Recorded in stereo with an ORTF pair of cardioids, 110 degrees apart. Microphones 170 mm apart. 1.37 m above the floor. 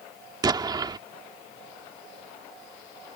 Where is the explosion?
25° right.